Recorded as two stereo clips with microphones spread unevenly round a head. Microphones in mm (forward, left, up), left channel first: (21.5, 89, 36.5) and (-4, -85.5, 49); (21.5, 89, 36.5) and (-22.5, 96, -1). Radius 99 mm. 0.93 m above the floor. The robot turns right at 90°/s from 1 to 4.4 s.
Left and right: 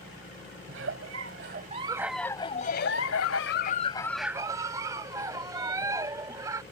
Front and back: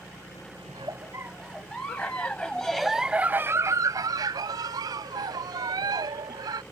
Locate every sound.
0.7 s a giggle: 115° right; by 6.6 s 165° right